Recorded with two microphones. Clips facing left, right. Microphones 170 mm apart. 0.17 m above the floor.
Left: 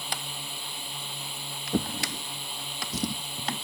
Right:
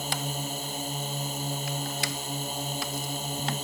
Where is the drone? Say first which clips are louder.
Right 7 dB; 45° right (ahead or behind).